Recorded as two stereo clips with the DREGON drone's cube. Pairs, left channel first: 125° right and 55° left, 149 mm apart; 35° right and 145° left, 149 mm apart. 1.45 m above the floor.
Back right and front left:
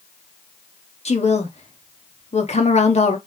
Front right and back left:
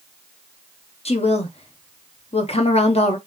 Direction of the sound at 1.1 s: 80° right.